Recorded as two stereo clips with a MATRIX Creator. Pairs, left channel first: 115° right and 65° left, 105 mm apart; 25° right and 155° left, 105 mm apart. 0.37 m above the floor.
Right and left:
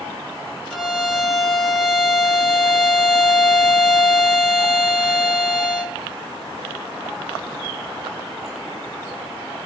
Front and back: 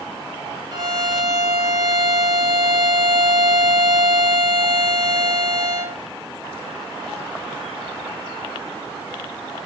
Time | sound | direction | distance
0.7 | a violin | 160° left | 0.8 m